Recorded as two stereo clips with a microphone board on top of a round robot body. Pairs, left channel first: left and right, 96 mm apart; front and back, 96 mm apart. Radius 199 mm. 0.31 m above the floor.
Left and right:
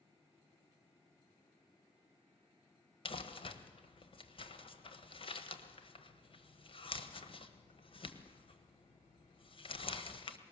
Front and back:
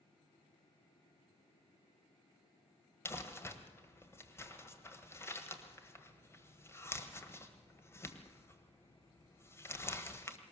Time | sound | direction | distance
3.0 | crumpling | 65° left | 1.5 m